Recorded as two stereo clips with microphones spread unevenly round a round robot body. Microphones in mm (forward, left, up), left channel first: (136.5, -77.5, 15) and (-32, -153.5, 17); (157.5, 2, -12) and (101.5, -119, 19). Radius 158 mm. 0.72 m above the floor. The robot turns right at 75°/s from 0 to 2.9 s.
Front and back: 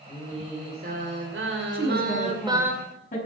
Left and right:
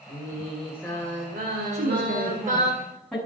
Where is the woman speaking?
110° right, 7 m; by 3.2 s 20° right, 7 m.